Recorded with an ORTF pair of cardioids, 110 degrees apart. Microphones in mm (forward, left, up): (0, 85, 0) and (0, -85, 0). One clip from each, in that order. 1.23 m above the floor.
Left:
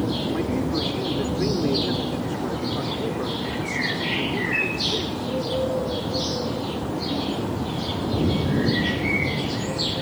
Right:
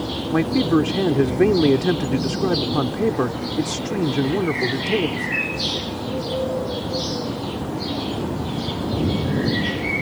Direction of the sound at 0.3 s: 55° right.